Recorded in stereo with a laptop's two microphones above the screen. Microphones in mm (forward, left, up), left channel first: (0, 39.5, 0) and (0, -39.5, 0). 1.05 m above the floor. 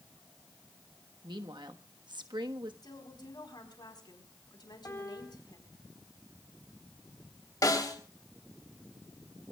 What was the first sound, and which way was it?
A woman speaking, 75° right (ahead or behind).